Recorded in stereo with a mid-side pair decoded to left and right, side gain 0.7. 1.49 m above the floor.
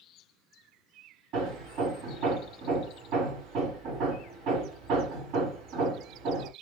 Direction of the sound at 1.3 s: 55° right.